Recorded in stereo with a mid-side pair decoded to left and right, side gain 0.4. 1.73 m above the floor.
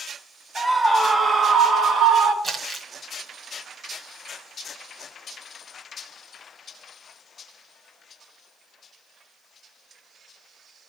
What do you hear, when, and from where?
0.6 s a scream: straight ahead, 0.9 m; by 2.3 s 75° right, 1.6 m
2.4 s crumpling: 45° right, 2.0 m